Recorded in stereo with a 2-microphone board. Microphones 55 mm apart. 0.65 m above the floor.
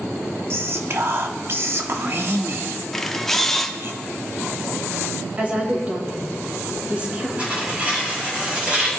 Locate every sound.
0.5 s whispering: 45° right (ahead or behind), 1.0 m
2.9 s a camera shutter: 10° left (ahead or behind), 0.9 m
5.4 s a woman speaking: 30° right (ahead or behind), 3 m
7.4 s tearing paper: 20° right (ahead or behind), 4 m